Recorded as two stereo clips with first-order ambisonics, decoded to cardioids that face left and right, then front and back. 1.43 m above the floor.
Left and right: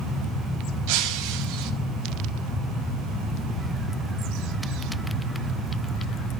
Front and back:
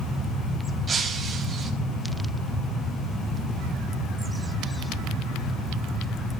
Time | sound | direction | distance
0.9 | breaking glass | 110° right | 4 m